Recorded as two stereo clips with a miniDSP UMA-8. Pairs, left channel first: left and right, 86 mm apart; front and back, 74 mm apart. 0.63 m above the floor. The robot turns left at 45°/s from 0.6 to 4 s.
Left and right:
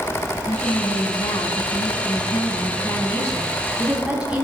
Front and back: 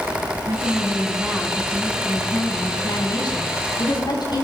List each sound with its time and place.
0.5 s a woman speaking: 145° left, 6 m; by 4.4 s 10° right, 6 m